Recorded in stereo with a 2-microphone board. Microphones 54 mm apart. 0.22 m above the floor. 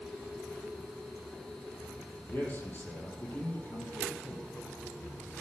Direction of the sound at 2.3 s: 40° left (ahead or behind).